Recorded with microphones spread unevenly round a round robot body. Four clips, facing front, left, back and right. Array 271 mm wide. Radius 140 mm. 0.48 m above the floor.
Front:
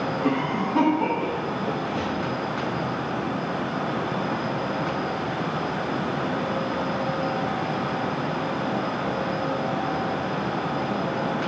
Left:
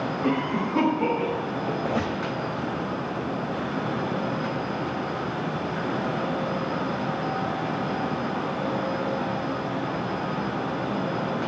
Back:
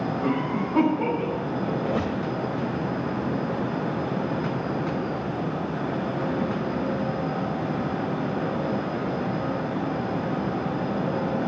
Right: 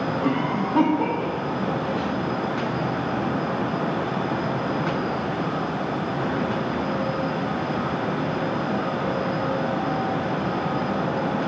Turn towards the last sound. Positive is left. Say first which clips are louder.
# right 1 dB, back 1 dB
turn(degrees=140)